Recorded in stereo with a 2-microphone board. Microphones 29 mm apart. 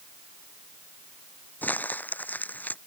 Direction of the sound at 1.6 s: 85° left.